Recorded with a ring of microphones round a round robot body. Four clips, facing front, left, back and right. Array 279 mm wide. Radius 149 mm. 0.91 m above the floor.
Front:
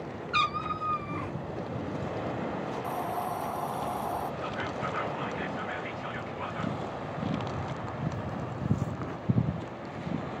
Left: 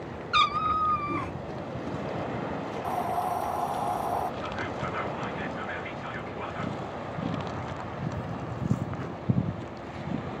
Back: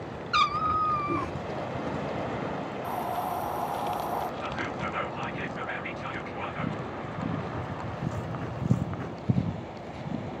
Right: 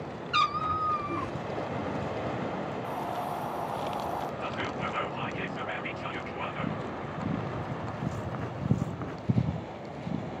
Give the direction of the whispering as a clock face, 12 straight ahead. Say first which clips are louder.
Even, back 1 dB; 4 o'clock.